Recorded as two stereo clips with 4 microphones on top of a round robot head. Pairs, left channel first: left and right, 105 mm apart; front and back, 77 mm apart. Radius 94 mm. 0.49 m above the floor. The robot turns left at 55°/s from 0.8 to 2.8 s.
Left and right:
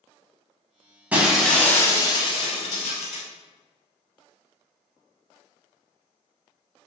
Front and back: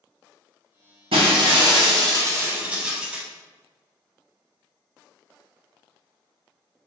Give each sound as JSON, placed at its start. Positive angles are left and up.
{"t": 1.1, "sound": "breaking glass", "azimuth_deg": -165, "distance_m": 0.8}